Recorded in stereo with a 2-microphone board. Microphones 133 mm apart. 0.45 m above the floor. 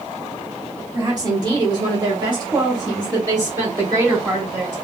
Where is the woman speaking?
30° right (ahead or behind), 1.3 m; by 4.8 s 15° right (ahead or behind), 1.7 m.